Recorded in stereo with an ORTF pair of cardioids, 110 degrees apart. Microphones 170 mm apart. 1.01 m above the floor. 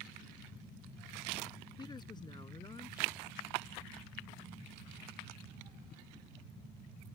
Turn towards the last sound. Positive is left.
turn(degrees=25)